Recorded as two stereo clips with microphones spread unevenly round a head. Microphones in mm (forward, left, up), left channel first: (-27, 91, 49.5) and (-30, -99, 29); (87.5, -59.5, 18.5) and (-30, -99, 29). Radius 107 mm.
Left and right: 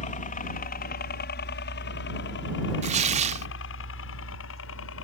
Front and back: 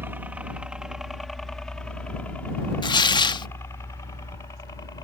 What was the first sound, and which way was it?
A helicopter, 125° left.